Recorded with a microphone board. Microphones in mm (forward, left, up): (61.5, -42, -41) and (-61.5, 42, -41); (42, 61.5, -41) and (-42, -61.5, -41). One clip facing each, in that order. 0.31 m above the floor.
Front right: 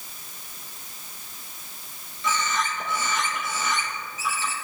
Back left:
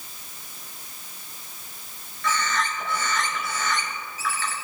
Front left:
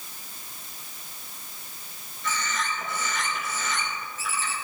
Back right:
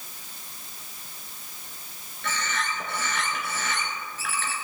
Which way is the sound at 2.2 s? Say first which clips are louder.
Even, even; 105° right.